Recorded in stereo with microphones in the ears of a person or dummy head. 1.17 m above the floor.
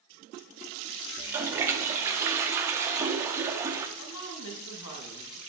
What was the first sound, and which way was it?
A toilet flushing, 15° right (ahead or behind).